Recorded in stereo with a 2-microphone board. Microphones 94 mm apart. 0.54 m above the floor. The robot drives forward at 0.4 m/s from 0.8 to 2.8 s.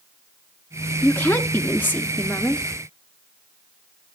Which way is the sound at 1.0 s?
20° left (ahead or behind).